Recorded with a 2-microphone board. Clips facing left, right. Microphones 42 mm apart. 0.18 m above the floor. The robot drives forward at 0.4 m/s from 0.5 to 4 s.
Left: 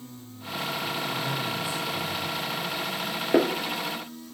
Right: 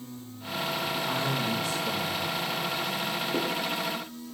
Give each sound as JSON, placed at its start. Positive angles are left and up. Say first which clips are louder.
{"t": 1.1, "sound": "a man speaking", "louder": "right 1 dB", "side_deg": -75, "distance_m": 8.5}
{"t": 3.3, "sound": "a snare drum", "louder": "left 10 dB", "side_deg": 65, "distance_m": 0.6}